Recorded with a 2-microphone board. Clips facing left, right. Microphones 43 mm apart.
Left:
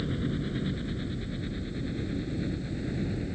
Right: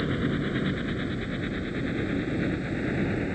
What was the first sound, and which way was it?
A helicopter, 40° right (ahead or behind).